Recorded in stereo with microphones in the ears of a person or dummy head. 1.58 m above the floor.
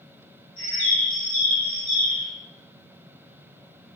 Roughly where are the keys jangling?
No keys jangling in this recording.